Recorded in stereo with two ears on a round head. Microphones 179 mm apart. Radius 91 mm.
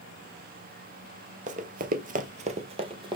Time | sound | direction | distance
1.5 | running footsteps | 40° right (ahead or behind) | 0.6 m